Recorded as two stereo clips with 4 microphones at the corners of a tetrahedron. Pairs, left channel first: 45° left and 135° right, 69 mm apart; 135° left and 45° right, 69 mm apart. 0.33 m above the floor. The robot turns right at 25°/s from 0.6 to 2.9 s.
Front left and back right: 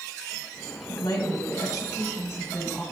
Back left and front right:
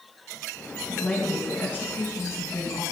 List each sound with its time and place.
0.9 s a woman speaking: 65° left, 2 m; by 2.8 s 115° left, 2 m